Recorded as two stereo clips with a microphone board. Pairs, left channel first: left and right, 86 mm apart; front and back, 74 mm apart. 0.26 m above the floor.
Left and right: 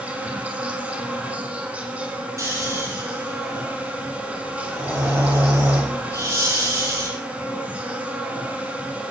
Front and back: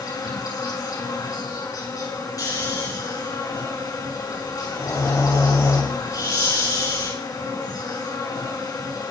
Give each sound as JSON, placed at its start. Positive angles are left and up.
{"t": 0.0, "sound": "an insect", "azimuth_deg": -20, "distance_m": 4.5}
{"t": 2.4, "sound": "snoring", "azimuth_deg": -35, "distance_m": 7.0}